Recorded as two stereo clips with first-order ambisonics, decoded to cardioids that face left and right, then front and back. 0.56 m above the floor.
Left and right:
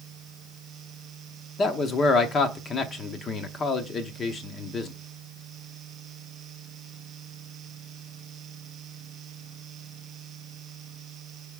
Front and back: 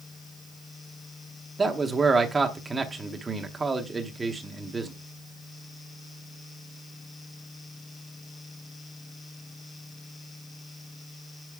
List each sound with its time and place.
1.6 s a man speaking: 120° left, 0.9 m